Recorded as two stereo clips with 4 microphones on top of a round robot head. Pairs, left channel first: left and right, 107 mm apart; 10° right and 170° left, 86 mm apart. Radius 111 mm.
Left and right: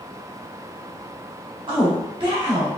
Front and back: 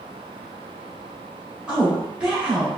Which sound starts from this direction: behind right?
A woman speaking, at 1.7 s.